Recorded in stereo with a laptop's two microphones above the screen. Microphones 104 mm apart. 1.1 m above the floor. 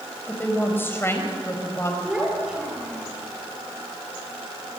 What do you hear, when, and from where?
0.3 s a woman speaking: 15° left (ahead or behind), 5 m; by 1.9 s 25° left (ahead or behind), 5 m
2.0 s a child speaking: 10° right (ahead or behind), 3 m